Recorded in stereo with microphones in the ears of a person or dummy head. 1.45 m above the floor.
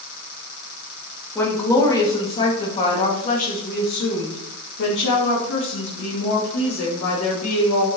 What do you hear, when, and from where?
1.4 s a woman speaking: 10° left (ahead or behind), 2.5 m; by 7.9 s 85° left, 3.5 m